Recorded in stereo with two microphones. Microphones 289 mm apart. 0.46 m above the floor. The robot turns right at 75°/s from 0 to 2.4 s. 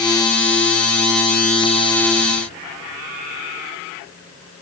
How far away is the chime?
No chime in this recording.